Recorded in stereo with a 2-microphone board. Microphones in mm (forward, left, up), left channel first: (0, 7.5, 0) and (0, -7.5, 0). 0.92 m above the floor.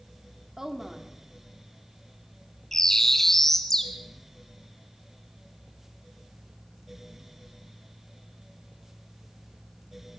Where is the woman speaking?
30° right (ahead or behind), 2.5 m.